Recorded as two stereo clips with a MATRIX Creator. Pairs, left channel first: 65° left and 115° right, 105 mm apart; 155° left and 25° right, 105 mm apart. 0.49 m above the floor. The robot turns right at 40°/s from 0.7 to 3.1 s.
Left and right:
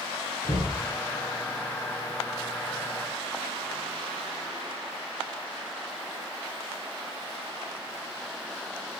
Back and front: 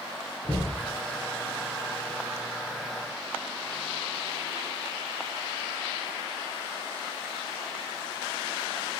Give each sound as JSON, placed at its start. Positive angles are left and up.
{"t": 0.4, "sound": "knocking", "azimuth_deg": 90, "distance_m": 3.5}